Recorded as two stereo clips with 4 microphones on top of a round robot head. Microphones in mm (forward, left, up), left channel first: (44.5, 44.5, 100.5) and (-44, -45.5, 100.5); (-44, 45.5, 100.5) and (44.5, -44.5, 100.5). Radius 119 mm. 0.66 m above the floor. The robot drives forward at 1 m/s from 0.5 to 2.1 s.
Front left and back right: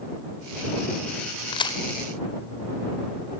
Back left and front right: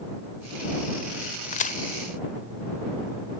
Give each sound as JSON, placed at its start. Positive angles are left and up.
{"t": 1.5, "sound": "a crack", "azimuth_deg": 100, "distance_m": 1.5}